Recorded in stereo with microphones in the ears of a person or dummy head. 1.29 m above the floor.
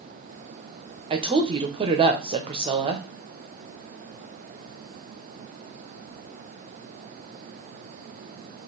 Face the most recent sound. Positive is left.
turn(degrees=-25)  # may be behind; listen again after turning